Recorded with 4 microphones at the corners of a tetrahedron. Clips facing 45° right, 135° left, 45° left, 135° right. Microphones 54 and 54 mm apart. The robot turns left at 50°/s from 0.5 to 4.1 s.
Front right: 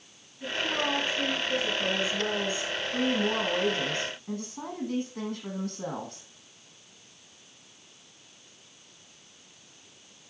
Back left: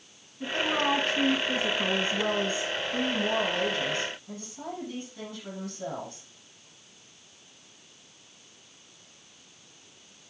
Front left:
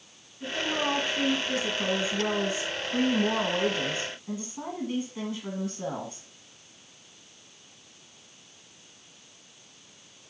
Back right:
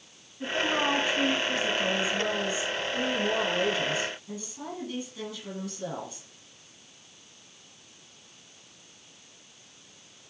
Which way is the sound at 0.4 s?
175° left.